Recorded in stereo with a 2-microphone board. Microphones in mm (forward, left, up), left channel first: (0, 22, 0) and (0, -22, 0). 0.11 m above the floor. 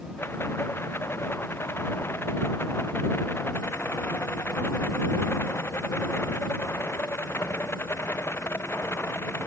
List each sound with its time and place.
0.2 s a rattle: 60° left (ahead or behind)